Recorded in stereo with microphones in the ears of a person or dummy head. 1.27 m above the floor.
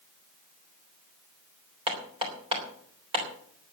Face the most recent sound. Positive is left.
turn(degrees=-30)  # may be behind; listen again after turning